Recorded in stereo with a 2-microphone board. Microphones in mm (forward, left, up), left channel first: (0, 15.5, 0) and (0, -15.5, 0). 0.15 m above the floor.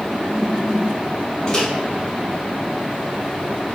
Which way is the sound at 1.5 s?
20° left (ahead or behind).